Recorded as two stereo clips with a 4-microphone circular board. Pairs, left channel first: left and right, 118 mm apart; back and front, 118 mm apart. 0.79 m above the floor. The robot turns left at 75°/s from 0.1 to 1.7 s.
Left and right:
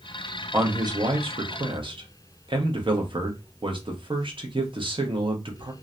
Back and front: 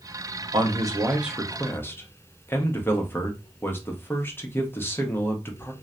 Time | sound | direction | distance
0.5 | a man speaking | 25° right | 0.7 m